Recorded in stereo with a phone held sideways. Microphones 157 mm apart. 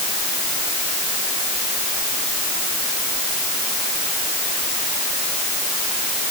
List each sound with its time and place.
Only background noise.